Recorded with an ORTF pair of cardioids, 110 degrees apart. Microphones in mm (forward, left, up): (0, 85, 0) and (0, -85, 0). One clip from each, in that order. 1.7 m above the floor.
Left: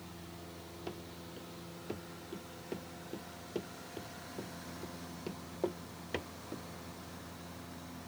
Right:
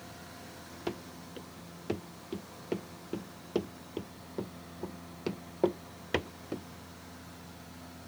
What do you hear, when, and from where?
0.9 s running footsteps: 45° right